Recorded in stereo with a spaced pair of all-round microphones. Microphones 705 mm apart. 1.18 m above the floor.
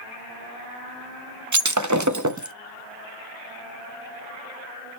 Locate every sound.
1.5 s breaking glass: 25° right (ahead or behind), 0.7 m